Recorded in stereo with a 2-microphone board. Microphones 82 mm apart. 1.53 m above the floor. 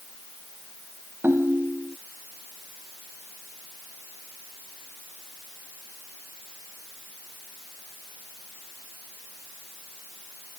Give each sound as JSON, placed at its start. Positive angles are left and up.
{"t": 1.2, "sound": "a ringtone", "side_deg": -30}